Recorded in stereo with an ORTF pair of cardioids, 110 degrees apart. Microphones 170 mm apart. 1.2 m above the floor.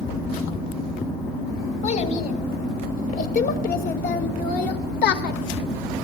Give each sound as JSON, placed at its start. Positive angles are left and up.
{"t": 1.8, "sound": "a child speaking", "azimuth_deg": 45, "distance_m": 4.5}